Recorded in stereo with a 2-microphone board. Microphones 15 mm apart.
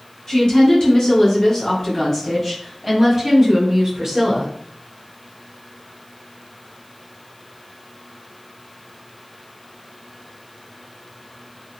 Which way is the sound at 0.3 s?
35° left (ahead or behind).